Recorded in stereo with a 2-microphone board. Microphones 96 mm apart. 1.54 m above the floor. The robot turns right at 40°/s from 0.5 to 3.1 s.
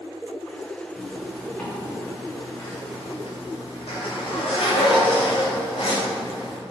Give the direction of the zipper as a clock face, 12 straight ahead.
12 o'clock.